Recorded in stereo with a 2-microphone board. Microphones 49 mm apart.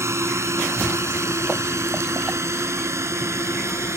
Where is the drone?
75° right (ahead or behind).